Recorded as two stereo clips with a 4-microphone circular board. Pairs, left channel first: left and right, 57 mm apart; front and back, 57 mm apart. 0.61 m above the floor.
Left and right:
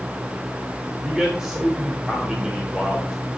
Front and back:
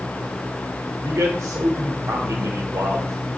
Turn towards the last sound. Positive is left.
turn(degrees=-170)